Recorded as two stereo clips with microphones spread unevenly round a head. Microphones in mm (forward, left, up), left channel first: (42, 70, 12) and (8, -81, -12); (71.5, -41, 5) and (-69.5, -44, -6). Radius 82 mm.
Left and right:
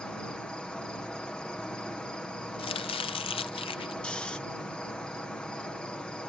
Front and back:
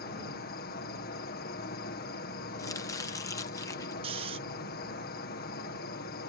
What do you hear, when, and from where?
0.0 s an insect: 10° right
2.6 s chopping: 60° left
4.0 s snoring: 145° left